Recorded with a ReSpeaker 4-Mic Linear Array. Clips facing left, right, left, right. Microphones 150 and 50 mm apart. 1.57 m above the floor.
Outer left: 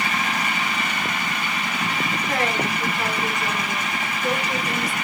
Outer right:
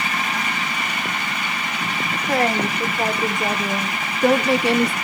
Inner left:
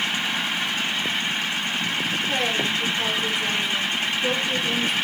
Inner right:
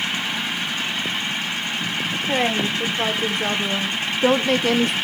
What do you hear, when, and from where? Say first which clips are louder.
2.3 s a woman speaking: outer right 6 dB, inner right 5 dB; 35° right (ahead or behind), 1.8 m; by 5.0 s 65° right (ahead or behind), 0.8 m